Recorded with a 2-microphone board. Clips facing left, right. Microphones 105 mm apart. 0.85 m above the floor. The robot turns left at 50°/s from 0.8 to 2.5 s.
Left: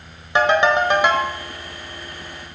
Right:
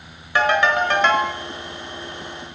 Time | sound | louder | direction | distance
0.3 | a ringtone | left 2 dB | 25° left (ahead or behind) | 1.4 m